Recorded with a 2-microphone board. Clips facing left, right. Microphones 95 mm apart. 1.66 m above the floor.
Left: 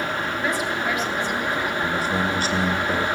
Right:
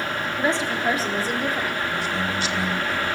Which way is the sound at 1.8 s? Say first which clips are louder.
Left 3 dB; 45° left (ahead or behind).